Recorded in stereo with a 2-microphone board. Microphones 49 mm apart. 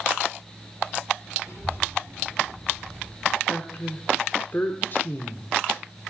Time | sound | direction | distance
1.4 | a child speaking | 60° left (ahead or behind) | 5.5 m
3.5 | a woman speaking | 45° left (ahead or behind) | 0.9 m